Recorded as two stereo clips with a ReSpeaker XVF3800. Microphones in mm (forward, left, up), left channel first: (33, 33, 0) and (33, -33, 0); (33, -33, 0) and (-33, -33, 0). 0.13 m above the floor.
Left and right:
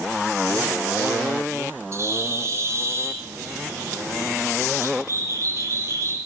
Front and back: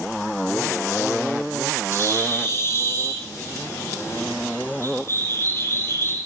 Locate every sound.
1.9 s a bird: 50° right, 6 m